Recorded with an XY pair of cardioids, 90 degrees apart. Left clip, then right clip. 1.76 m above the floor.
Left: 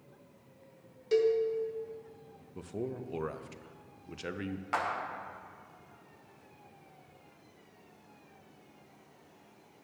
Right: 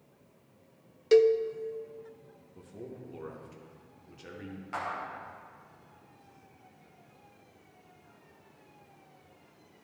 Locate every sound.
1.1 s a cowbell: 65° right, 0.7 m
2.5 s a man speaking: 65° left, 0.8 m
4.7 s a clap: 60° left, 1.5 m